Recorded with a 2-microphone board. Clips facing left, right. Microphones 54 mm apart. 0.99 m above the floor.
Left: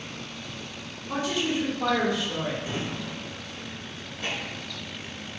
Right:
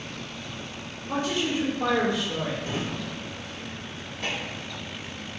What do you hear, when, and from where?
1.1 s a woman speaking: 40° right (ahead or behind), 1.5 m
2.6 s a drawer: 70° right (ahead or behind), 1.5 m